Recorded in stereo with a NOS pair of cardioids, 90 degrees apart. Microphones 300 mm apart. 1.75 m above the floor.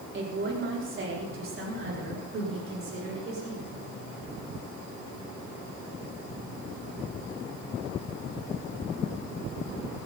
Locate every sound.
0.1 s a woman speaking: 40° right, 5 m; by 3.9 s 50° right, 7 m